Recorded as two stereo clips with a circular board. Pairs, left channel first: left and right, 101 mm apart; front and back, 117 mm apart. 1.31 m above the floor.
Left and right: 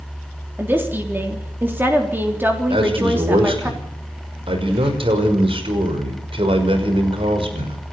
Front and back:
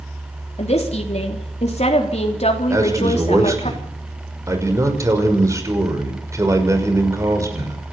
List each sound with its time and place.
0.6 s a woman speaking: 20° right, 3.5 m
2.7 s a man speaking: 115° right, 5.5 m